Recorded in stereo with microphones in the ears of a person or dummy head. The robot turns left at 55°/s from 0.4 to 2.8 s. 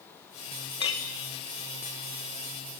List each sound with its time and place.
0.8 s a clink: 25° left (ahead or behind), 0.6 m; by 1.0 s 35° left (ahead or behind), 0.6 m